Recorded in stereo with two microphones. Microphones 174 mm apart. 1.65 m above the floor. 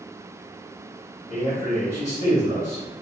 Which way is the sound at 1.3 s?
65° left (ahead or behind).